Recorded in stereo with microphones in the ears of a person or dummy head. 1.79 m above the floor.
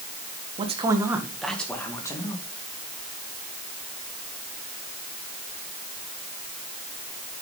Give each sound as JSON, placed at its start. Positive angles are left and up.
{"t": 0.6, "sound": "a man speaking", "side_deg": -35, "distance_m": 1.9}